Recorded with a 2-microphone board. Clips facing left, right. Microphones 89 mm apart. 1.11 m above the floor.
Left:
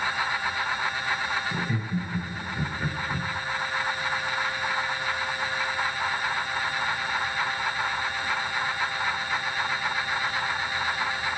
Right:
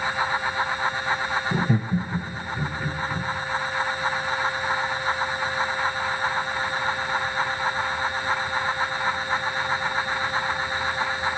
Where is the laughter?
55° right (ahead or behind), 0.8 m; by 3.3 s 25° left (ahead or behind), 1.3 m.